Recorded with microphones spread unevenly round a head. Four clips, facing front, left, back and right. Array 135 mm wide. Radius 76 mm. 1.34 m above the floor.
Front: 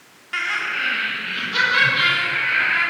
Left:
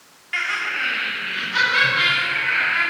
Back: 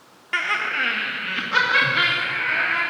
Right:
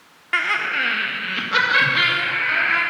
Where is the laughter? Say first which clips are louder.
Right 3 dB, back 1 dB; 110° right, 0.8 m; by 2.8 s 105° right, 3.5 m.